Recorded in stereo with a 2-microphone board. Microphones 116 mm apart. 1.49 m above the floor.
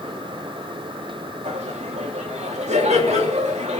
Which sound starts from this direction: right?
Laughter, at 1.4 s.